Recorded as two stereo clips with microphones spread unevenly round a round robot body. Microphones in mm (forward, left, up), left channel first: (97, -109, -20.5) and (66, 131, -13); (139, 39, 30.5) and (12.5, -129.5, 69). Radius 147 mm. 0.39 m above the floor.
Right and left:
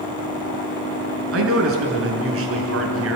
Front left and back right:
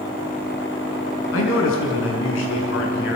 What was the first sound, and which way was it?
A man speaking, 70° left.